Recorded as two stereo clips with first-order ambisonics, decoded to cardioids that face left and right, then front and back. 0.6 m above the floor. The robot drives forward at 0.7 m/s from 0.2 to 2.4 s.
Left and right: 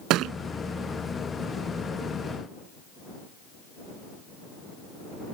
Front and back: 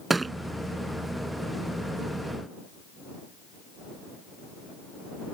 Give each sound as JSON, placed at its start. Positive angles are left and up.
{"t": 0.1, "sound": "a thud", "azimuth_deg": -105}